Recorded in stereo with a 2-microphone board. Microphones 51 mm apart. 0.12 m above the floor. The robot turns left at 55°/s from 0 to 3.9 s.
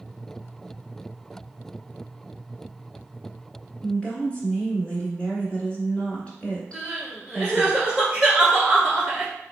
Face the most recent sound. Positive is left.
turn(degrees=-20)  # may be behind; listen again after turning